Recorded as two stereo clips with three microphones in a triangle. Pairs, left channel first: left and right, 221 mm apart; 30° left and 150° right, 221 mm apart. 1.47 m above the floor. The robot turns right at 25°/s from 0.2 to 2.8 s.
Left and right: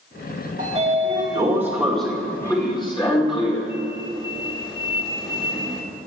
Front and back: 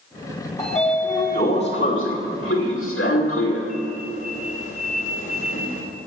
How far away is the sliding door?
About 2 m.